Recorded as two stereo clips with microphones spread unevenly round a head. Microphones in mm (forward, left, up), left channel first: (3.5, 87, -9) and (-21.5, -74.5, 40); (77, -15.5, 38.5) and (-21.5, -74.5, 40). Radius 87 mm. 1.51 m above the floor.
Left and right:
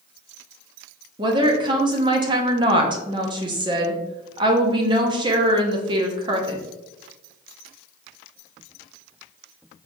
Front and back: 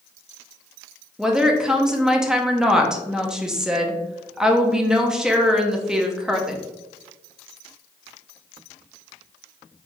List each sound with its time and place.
1.2 s a woman speaking: 65° right, 0.6 m